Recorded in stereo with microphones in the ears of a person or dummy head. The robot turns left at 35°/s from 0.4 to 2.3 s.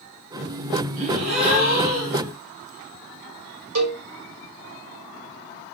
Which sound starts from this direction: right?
A cowbell, at 3.8 s.